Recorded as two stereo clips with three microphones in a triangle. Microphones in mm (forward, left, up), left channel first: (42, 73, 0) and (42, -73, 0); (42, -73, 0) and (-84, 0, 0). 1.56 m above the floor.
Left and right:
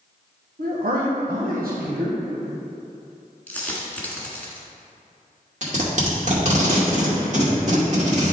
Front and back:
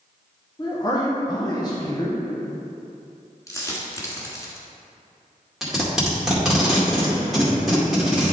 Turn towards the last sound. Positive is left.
turn(degrees=-125)